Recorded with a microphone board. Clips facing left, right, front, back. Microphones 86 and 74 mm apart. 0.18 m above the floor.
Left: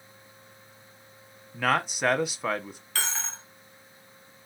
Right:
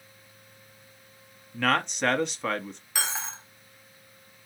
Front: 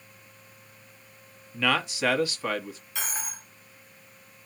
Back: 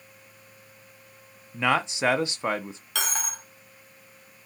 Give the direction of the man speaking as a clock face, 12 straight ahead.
7 o'clock.